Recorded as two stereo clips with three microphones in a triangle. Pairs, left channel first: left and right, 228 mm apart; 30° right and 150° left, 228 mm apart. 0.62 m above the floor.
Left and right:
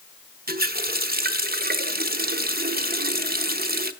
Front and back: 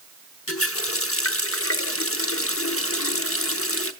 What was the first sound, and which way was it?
A running tap, 40° right.